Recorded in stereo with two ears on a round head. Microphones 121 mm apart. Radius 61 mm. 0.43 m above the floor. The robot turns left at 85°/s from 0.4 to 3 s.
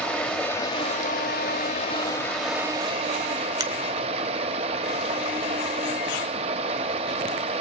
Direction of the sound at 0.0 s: 170° left.